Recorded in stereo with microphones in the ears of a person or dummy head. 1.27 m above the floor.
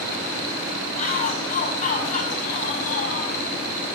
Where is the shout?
45° left (ahead or behind), 6 m.